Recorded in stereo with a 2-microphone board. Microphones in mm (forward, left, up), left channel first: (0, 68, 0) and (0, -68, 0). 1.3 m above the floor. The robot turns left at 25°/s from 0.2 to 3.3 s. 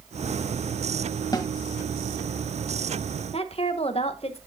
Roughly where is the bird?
No bird in this recording.